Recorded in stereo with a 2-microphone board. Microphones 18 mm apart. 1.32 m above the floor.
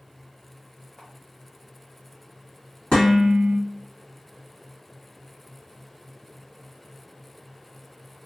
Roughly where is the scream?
No scream in this recording.